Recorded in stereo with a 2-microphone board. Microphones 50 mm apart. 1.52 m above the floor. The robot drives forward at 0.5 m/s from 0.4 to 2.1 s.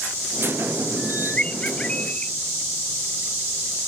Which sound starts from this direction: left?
A bird, at 1.0 s.